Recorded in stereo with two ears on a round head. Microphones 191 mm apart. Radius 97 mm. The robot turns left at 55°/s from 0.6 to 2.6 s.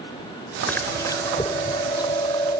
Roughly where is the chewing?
Centre.